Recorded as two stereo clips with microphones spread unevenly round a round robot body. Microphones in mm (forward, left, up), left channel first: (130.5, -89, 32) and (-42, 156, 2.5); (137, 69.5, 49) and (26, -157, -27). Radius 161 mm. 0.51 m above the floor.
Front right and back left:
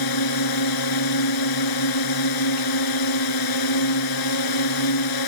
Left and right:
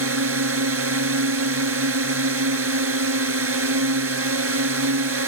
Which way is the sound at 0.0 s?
85° right.